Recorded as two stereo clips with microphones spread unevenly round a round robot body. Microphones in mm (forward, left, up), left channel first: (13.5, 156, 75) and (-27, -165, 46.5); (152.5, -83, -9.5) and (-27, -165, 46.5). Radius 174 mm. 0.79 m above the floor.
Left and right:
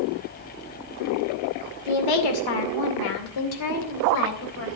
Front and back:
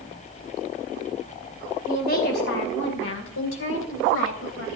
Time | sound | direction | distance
1.9 | a woman speaking | 90° left | 2.5 m